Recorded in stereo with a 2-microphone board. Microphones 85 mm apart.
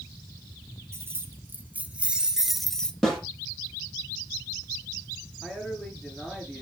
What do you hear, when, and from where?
0.9 s keys jangling: 30° right (ahead or behind), 2 m; by 2.9 s 10° left (ahead or behind), 1.2 m
3.0 s a snare drum: 5° left (ahead or behind), 6.5 m
5.4 s a man speaking: centre (ahead or behind), 6.5 m